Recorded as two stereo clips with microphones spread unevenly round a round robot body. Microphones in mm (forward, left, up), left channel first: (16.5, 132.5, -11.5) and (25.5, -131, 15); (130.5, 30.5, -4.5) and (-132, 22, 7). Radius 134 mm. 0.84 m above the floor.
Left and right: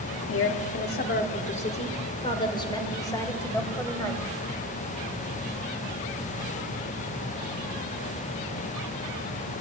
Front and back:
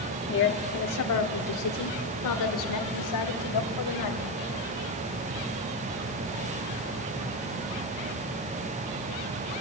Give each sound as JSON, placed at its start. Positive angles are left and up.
{"t": 0.3, "sound": "a woman speaking", "azimuth_deg": 50, "distance_m": 1.4}